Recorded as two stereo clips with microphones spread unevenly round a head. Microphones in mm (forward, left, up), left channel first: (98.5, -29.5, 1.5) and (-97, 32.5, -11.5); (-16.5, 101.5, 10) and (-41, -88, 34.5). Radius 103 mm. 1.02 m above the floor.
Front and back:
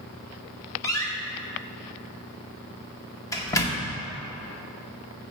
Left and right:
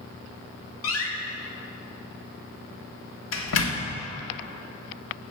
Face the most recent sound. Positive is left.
turn(degrees=55)